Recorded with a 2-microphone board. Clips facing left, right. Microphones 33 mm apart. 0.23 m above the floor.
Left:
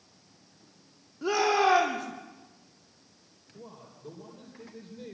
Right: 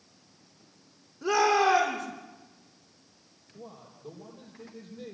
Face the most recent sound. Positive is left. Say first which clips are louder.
# right 1 dB
turn(degrees=15)  # may be behind; listen again after turning